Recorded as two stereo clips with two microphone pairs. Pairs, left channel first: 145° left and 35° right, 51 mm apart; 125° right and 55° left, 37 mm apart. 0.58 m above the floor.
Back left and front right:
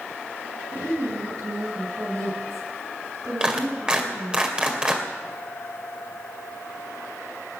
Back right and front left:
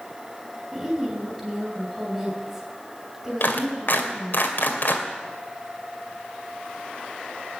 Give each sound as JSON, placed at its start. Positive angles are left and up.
{"t": 0.7, "sound": "a woman speaking", "azimuth_deg": -30, "distance_m": 6.5}
{"t": 3.4, "sound": "a clap", "azimuth_deg": -110, "distance_m": 2.0}